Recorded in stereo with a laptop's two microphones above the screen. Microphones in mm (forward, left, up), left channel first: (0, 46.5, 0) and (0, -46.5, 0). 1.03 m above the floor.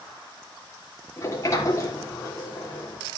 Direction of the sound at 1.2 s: 35° left (ahead or behind).